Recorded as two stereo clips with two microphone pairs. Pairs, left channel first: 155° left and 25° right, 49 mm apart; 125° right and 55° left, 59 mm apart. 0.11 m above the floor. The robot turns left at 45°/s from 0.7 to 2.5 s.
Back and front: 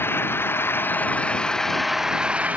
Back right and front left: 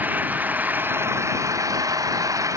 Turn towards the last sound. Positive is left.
turn(degrees=35)